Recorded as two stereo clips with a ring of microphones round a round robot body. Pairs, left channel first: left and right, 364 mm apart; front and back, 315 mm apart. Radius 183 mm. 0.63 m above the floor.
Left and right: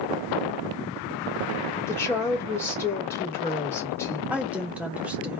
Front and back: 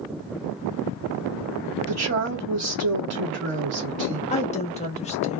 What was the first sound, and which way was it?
A woman speaking, 170° left.